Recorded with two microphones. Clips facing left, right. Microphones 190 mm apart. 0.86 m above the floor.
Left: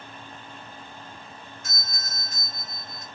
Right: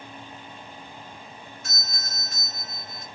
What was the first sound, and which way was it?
A doorbell, 50° left (ahead or behind).